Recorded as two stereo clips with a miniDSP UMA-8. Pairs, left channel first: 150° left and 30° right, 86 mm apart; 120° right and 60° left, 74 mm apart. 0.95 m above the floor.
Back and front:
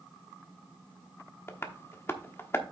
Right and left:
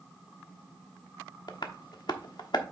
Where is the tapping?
145° right, 1.1 m.